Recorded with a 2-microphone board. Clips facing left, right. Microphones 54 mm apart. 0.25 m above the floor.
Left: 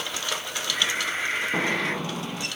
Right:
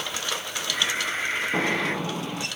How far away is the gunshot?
About 1.9 m.